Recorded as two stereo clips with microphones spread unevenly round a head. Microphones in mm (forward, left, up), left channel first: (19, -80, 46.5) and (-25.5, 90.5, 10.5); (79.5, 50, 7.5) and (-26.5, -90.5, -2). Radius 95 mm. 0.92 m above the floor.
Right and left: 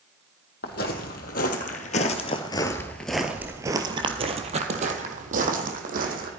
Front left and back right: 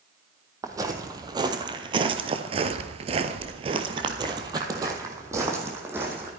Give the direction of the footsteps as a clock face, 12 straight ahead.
2 o'clock.